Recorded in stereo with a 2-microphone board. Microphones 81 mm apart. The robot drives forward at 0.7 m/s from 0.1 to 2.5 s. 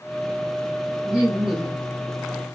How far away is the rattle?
I don't hear a rattle.